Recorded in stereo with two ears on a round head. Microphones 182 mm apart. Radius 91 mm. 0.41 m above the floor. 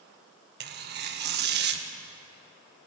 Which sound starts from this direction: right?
Tearing paper, at 0.6 s.